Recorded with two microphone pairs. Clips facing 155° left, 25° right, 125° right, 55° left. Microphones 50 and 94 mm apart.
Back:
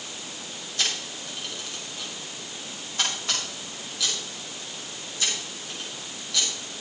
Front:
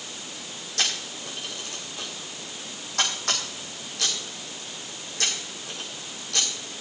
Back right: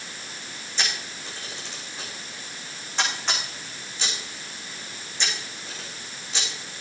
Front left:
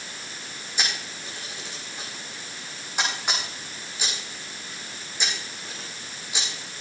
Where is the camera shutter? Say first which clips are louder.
Front 1 dB, even; 25° right, 6.5 m.